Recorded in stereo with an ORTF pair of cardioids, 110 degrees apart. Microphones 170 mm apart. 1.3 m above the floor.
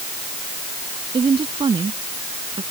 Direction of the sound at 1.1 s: 30° right.